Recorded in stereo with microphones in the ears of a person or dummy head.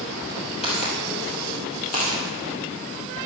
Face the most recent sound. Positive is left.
turn(degrees=45)  # may be behind; listen again after turning